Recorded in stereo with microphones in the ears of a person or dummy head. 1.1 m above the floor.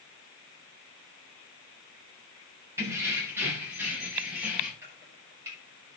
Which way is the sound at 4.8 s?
15° right (ahead or behind).